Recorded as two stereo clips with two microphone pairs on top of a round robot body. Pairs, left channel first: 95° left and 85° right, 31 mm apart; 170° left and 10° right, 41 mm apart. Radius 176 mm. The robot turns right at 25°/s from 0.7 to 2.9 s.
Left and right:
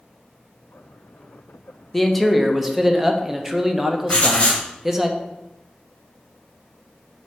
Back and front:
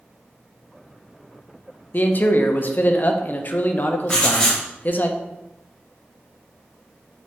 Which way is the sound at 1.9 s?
160° left.